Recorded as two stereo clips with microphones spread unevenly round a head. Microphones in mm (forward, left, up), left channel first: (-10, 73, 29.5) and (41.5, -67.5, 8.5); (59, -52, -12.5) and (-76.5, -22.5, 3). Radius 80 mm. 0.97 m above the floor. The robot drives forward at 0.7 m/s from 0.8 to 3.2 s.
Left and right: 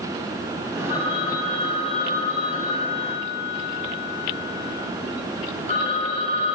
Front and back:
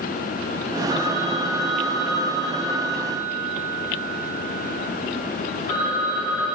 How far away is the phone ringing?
About 9 m.